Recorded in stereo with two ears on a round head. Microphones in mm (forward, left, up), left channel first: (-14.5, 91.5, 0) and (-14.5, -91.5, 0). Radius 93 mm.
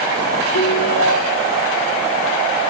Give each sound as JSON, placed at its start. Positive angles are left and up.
{"t": 0.5, "sound": "a ringtone", "side_deg": 75, "distance_m": 2.0}